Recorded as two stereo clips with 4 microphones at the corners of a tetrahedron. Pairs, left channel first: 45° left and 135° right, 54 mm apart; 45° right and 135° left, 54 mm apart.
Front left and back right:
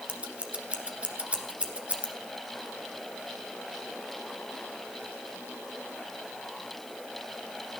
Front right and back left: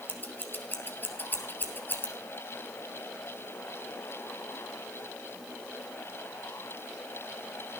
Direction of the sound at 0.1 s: 75° right.